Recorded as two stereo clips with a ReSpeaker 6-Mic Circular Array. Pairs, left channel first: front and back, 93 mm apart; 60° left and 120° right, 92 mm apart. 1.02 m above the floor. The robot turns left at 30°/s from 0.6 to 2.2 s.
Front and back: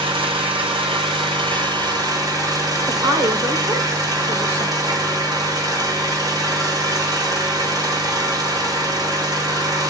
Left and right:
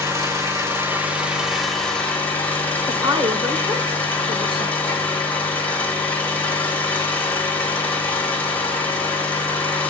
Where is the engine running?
175° right, 4.5 m; by 9.9 s 135° left, 4.5 m.